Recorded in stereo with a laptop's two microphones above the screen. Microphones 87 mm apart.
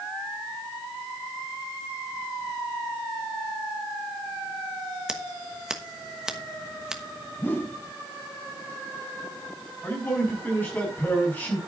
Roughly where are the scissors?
Centre.